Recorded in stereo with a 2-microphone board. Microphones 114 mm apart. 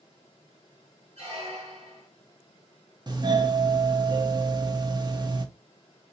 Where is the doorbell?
40° right (ahead or behind), 0.7 m.